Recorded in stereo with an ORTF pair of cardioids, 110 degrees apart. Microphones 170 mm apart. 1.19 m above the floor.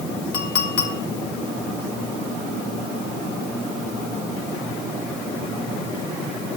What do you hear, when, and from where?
0.3 s a clink: 70° left, 1.6 m